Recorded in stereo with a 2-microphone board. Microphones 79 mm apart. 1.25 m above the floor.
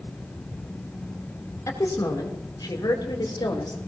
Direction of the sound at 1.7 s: 45° left (ahead or behind).